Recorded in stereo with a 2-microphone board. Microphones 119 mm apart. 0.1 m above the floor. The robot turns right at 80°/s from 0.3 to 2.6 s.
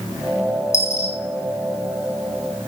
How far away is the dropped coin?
About 2 m.